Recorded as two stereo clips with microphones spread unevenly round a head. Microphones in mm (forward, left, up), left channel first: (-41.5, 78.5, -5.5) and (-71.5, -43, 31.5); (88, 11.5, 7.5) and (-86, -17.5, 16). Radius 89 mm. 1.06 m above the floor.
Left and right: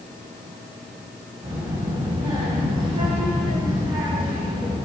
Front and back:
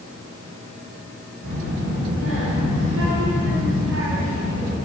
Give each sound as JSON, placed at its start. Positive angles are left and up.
{"t": 1.4, "sound": "a child speaking", "azimuth_deg": -160, "distance_m": 4.5}